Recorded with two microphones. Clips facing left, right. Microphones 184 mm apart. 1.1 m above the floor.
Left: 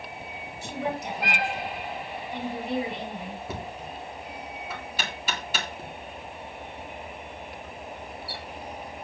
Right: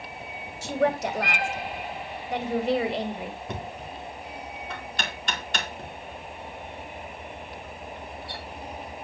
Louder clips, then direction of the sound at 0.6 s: Right 7 dB; 80° right.